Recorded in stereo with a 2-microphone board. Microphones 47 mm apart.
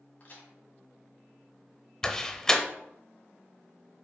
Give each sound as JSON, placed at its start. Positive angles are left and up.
{"t": 0.2, "sound": "a crack", "side_deg": 40, "distance_m": 2.5}
{"t": 2.0, "sound": "a door slam", "side_deg": 10, "distance_m": 0.7}